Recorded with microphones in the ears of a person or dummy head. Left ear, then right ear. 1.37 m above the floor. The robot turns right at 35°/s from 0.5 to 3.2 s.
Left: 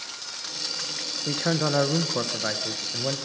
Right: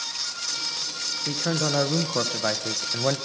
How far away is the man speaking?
About 1.0 m.